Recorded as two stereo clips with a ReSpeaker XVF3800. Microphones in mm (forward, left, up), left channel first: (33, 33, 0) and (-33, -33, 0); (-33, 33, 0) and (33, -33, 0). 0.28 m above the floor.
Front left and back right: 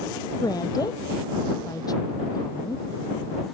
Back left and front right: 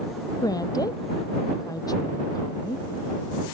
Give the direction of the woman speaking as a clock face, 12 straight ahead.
9 o'clock.